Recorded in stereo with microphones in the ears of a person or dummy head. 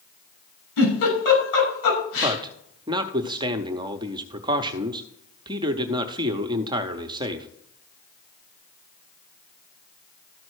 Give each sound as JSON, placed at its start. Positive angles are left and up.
{"t": 0.8, "sound": "a giggle", "side_deg": 75, "distance_m": 5.5}
{"t": 2.2, "sound": "a man speaking", "side_deg": -20, "distance_m": 0.6}